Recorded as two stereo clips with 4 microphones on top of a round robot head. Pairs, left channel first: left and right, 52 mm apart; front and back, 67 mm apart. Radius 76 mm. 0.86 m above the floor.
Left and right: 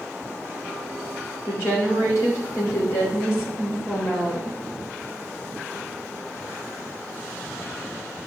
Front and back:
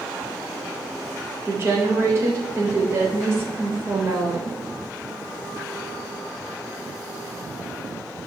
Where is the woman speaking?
130° left, 3.5 m.